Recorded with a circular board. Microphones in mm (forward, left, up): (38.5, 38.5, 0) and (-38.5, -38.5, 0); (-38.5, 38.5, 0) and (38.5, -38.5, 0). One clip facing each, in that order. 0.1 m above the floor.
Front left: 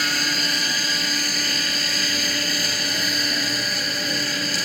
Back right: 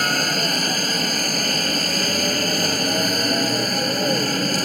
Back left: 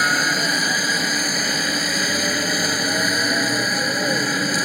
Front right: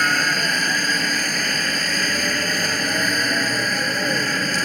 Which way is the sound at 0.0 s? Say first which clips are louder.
Back right 4 dB, back left 1 dB; 150° right.